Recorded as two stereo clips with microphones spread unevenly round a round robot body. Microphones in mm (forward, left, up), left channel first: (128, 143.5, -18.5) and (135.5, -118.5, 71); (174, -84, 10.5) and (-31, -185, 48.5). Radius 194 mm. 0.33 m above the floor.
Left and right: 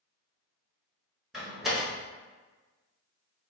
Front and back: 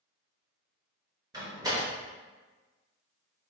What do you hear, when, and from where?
1.3 s a door slam: 135° left, 1.0 m